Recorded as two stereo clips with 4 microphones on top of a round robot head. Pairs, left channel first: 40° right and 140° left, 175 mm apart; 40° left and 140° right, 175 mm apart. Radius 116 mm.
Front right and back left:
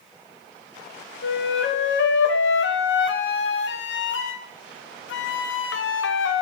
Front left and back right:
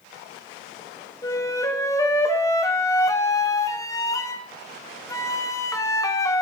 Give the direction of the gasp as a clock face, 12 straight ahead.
No gasp in this recording.